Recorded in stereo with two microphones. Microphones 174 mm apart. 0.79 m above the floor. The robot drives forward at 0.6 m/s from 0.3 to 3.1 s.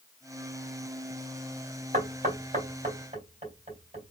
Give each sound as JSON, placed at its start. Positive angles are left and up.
{"t": 1.9, "sound": "knocking", "side_deg": -50, "distance_m": 2.5}